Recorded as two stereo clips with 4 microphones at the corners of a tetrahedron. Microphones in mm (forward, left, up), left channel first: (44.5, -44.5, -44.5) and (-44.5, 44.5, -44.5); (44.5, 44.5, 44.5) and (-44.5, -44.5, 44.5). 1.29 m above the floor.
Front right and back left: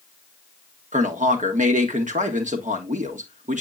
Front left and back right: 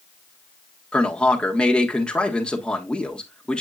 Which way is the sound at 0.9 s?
130° left.